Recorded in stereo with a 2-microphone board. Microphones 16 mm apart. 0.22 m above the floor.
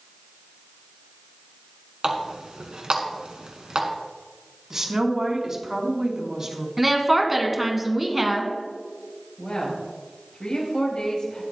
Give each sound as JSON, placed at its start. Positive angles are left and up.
{"t": 2.0, "sound": "a running tap", "side_deg": -60, "distance_m": 1.5}
{"t": 4.7, "sound": "a woman speaking", "side_deg": -35, "distance_m": 2.0}
{"t": 6.8, "sound": "a woman speaking", "side_deg": -10, "distance_m": 1.7}
{"t": 9.4, "sound": "a woman speaking", "side_deg": 70, "distance_m": 5.0}